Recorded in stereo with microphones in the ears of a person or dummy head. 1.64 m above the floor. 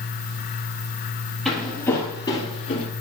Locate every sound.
1.4 s footsteps: centre (ahead or behind), 2 m; by 2.9 s 40° left (ahead or behind), 2 m